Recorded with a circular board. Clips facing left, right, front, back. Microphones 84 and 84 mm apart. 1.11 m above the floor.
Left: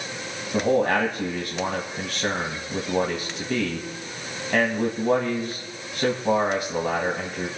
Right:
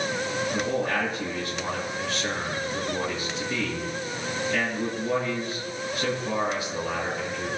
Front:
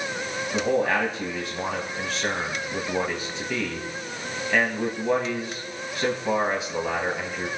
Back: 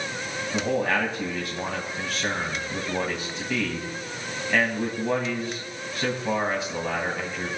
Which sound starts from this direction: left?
A man speaking, at 0.5 s.